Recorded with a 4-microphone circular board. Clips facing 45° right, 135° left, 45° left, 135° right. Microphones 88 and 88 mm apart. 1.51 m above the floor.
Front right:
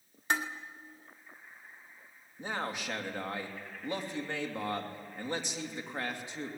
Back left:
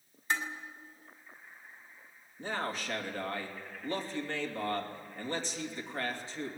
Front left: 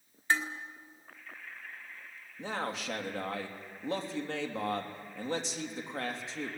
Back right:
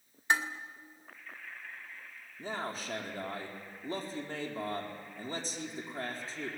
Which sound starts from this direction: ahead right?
Dishes clattering, at 0.3 s.